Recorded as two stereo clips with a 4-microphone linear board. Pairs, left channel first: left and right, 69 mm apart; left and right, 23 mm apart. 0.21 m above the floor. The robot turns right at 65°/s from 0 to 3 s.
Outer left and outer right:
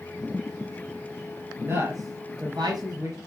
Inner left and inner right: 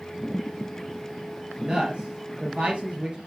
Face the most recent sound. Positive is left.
turn(degrees=-55)  # may be behind; listen again after turning